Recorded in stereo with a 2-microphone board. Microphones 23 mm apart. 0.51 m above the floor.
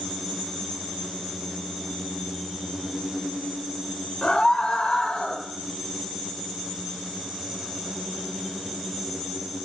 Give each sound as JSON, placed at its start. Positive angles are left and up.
{"t": 4.2, "sound": "a scream", "side_deg": 45, "distance_m": 2.0}